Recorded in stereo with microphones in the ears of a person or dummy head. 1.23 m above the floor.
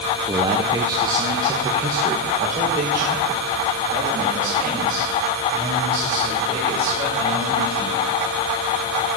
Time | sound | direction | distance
0.3 | a man speaking | 20° right (ahead or behind) | 0.7 m